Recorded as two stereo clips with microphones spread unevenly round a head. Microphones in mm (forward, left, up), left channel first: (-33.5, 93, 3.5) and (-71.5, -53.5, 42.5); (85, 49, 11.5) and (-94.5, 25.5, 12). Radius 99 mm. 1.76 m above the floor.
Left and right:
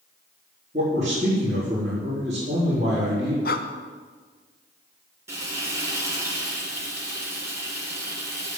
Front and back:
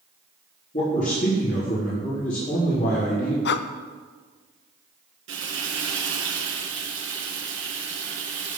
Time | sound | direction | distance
0.7 | a man speaking | 45° right | 4 m
3.5 | breathing | 25° left | 0.7 m
5.3 | frying | 165° right | 3.5 m